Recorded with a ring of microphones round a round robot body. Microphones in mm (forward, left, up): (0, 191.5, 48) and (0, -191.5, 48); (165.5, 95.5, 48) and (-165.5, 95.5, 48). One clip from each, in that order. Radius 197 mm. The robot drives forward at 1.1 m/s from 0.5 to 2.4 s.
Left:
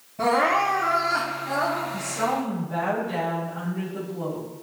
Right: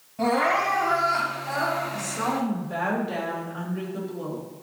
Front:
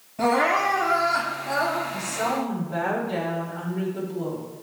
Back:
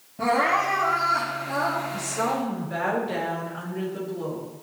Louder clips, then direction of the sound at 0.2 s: Left 2 dB, front 1 dB; 15° right.